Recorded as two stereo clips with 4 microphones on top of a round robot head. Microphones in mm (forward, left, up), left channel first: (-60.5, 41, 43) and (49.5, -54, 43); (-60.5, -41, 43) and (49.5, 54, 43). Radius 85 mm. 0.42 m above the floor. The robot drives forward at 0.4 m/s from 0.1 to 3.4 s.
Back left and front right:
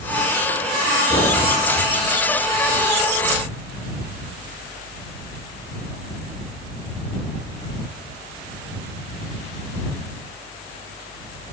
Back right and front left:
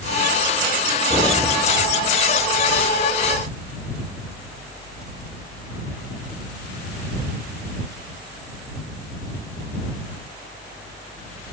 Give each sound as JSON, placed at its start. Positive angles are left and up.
{"t": 1.1, "sound": "knocking", "azimuth_deg": -90, "distance_m": 6.0}